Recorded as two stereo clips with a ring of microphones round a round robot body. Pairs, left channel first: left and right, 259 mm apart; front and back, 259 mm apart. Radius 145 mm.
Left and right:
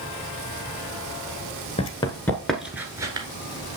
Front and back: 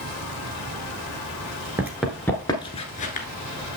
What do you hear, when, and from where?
1.8 s running footsteps: 110° left, 0.9 m; by 3.3 s 30° right, 1.0 m